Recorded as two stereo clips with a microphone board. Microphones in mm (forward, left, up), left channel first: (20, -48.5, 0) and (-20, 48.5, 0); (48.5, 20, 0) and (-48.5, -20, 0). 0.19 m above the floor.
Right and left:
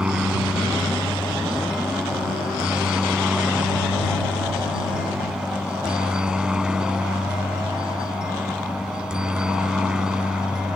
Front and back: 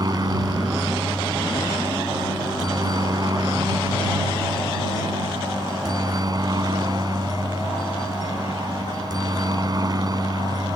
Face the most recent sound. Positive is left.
turn(degrees=-170)